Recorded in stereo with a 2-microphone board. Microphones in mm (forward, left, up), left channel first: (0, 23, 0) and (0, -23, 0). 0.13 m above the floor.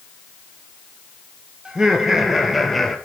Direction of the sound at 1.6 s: 15° right (ahead or behind).